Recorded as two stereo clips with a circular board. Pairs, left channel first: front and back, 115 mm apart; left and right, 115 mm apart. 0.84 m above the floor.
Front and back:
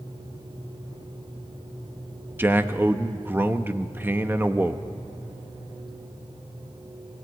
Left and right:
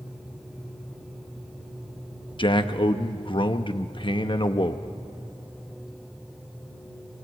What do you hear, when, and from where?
2.4 s a man speaking: 115° left, 0.9 m